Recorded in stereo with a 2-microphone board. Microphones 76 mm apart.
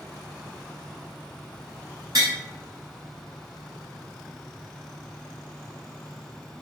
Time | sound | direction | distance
2.1 | tapping | 50° right (ahead or behind) | 1.6 m